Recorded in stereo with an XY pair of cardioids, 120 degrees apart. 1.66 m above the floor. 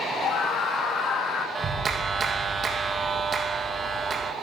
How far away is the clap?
About 1.9 m.